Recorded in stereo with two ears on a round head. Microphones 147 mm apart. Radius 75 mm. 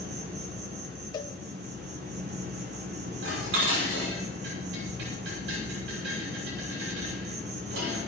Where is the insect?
70° right (ahead or behind), 4.5 m.